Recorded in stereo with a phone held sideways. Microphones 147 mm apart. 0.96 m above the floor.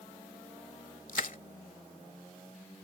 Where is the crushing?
65° left (ahead or behind).